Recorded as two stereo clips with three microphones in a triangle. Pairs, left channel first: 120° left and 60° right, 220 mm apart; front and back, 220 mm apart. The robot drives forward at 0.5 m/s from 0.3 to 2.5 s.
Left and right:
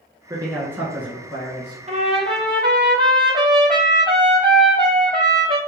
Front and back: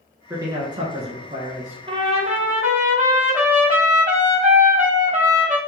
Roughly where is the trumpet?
Behind right.